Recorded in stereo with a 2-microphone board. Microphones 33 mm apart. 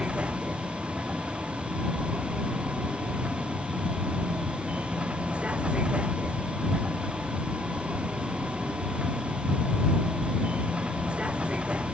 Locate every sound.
0.0 s a vehicle: 35° right (ahead or behind)